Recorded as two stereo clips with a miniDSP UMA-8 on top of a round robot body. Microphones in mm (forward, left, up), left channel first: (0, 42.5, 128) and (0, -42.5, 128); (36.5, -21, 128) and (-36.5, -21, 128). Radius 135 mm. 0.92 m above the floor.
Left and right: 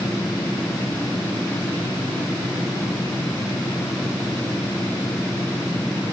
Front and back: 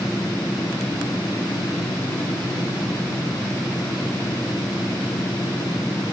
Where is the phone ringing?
No phone ringing in this recording.